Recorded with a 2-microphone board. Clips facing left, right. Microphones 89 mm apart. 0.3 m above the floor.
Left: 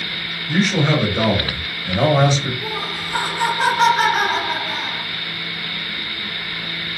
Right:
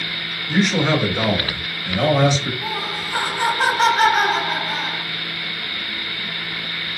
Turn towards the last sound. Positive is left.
turn(degrees=10)  # may be behind; listen again after turning